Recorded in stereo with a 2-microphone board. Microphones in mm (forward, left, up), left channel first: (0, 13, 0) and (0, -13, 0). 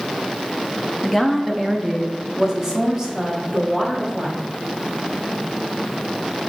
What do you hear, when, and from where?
1.0 s a woman speaking: centre (ahead or behind), 0.7 m; by 4.4 s 25° right (ahead or behind), 2 m